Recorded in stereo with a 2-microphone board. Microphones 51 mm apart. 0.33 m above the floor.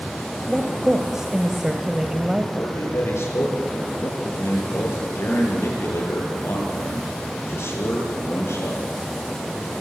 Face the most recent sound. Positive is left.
turn(degrees=55)  # may be behind; listen again after turning